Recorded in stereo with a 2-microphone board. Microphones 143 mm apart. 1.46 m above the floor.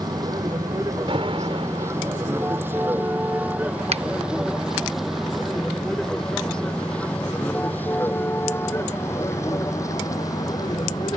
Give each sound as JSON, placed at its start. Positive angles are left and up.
{"t": 0.0, "sound": "a vehicle", "side_deg": -30}
{"t": 1.1, "sound": "an alarm", "side_deg": -40}
{"t": 3.9, "sound": "a finger snap", "side_deg": -45}